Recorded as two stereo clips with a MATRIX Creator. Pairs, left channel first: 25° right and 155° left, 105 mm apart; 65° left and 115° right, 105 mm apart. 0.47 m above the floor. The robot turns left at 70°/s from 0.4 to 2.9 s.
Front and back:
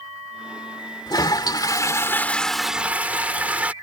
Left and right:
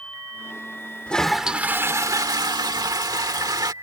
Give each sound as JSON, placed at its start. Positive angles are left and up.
{"t": 1.1, "sound": "a toilet flushing", "azimuth_deg": -5}